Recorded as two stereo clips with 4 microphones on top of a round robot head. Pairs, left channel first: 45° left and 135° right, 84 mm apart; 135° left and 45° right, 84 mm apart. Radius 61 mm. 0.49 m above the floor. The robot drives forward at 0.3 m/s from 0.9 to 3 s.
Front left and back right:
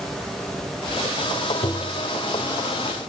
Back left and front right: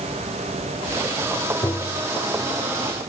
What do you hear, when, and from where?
1.6 s tapping: 80° left, 0.8 m; by 2.0 s 90° left, 0.8 m